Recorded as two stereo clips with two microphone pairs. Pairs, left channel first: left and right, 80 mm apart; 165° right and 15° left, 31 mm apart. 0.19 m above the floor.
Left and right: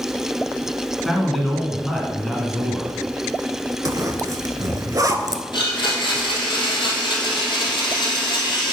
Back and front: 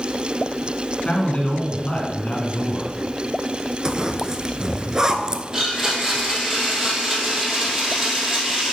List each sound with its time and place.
1.1 s a man speaking: straight behind, 1.7 m
3.9 s a zipper: 50° right, 0.5 m
5.5 s a blender: 90° left, 1.8 m